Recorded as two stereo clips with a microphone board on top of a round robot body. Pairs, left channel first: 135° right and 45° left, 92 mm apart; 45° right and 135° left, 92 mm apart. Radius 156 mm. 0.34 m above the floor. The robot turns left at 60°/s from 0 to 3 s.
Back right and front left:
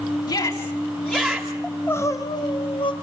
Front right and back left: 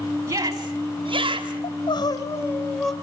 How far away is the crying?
About 2 m.